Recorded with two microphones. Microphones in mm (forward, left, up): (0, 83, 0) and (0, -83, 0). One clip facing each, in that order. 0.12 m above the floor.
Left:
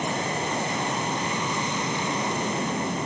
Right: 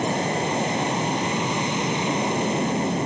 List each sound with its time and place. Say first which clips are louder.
0.0 s an aircraft: right 4 dB; 20° right (ahead or behind)